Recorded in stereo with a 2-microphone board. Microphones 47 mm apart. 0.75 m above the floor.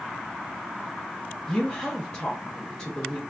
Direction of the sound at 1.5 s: 20° left (ahead or behind).